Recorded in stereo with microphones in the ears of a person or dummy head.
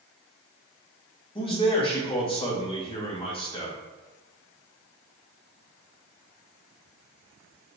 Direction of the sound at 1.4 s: 25° left (ahead or behind).